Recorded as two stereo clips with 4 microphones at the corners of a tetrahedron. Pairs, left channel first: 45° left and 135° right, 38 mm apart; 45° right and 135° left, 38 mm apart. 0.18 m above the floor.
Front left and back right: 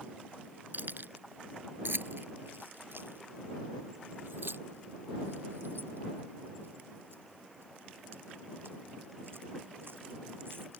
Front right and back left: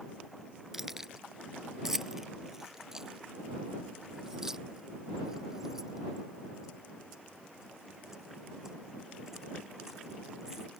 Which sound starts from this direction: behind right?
Keys jangling, at 0.7 s.